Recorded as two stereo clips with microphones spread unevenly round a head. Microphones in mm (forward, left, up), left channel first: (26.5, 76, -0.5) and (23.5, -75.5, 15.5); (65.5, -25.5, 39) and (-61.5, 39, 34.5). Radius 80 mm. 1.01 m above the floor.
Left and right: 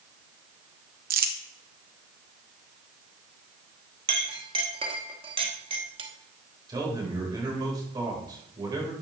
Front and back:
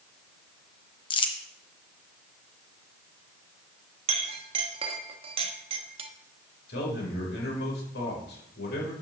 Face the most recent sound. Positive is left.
turn(degrees=-25)